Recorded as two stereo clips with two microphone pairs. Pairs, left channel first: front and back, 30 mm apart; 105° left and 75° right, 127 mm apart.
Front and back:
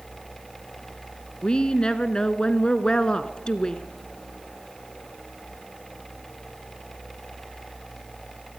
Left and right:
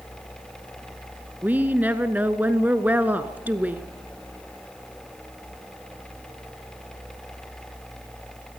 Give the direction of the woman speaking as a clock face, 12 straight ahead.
12 o'clock.